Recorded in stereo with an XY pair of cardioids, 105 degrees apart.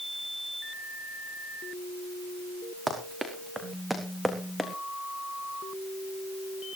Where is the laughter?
No laughter in this recording.